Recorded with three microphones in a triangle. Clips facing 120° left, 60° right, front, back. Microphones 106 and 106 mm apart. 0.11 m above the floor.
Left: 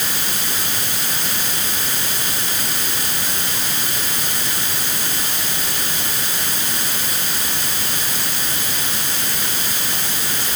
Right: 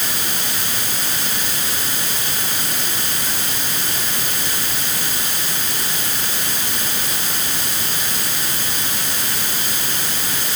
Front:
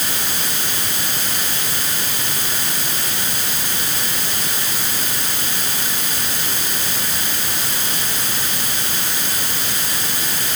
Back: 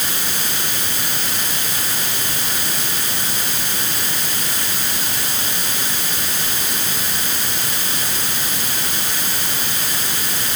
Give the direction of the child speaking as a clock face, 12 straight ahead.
No child speaking in this recording.